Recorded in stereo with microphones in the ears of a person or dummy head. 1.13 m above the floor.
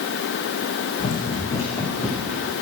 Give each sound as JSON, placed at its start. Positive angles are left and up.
{"t": 1.0, "sound": "running footsteps", "side_deg": 30, "distance_m": 3.0}